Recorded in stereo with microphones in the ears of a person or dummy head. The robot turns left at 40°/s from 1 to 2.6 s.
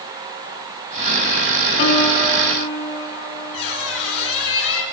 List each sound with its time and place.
1.8 s a piano: 125° left, 3.5 m; by 4.3 s 95° left, 3.5 m
3.5 s a squeak: 75° left (ahead or behind), 6.5 m